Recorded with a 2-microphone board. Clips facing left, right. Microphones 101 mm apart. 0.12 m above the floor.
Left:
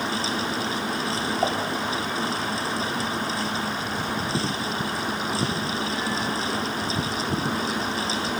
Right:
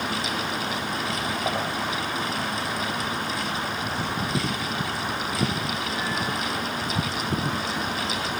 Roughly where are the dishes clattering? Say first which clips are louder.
Left 4 dB; left.